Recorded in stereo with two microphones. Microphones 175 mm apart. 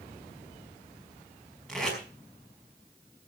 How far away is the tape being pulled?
About 5 m.